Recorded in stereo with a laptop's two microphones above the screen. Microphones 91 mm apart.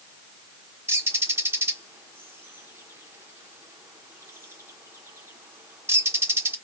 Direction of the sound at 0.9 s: 25° right (ahead or behind).